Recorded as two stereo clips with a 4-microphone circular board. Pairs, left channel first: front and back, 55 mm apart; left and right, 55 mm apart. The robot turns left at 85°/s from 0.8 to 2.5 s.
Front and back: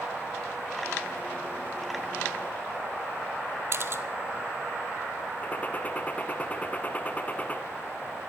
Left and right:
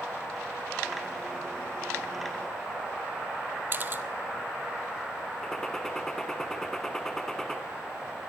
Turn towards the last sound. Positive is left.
turn(degrees=20)